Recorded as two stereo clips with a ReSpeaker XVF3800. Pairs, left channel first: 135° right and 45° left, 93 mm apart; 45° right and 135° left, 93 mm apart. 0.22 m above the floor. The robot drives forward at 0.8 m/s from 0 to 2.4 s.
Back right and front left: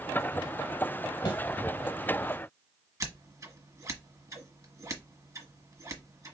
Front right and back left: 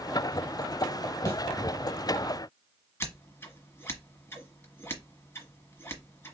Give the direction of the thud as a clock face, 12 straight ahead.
3 o'clock.